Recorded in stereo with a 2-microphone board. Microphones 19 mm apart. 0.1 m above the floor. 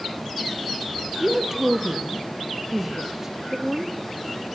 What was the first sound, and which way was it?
A woman speaking, 20° right (ahead or behind).